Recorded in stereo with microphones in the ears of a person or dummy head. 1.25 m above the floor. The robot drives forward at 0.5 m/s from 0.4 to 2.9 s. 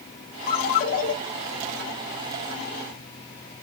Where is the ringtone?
45° left (ahead or behind), 2.5 m; by 1.1 s 40° left (ahead or behind), 3 m.